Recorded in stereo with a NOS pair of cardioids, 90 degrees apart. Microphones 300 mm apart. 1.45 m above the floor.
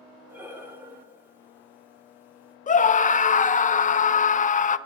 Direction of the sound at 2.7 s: 25° left.